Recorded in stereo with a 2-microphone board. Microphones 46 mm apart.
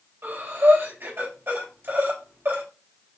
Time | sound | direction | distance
0.2 | breathing | 55° right (ahead or behind) | 3 m